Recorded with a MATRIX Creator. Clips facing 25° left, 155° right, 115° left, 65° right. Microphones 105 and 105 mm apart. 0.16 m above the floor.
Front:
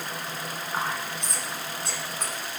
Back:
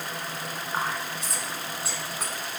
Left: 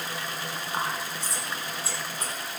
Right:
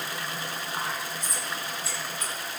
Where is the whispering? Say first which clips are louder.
Even, left 3 dB; 120° left, 1.1 m.